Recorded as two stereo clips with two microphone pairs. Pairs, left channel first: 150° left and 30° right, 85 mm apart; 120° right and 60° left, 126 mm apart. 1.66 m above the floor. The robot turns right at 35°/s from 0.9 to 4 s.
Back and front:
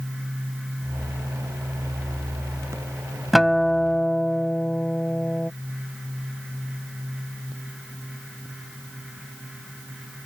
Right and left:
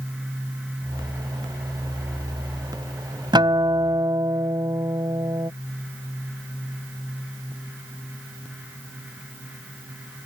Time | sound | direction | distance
3.3 | a guitar | 60° left | ?